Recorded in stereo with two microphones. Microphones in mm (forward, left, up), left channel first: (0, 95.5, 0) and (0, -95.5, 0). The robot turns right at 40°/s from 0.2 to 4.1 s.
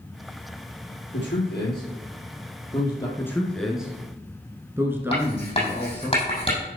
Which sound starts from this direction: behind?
A man speaking, at 3.2 s.